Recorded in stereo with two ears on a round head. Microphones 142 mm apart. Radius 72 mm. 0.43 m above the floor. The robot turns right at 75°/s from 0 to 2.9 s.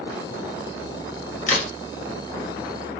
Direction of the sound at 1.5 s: 45° left (ahead or behind).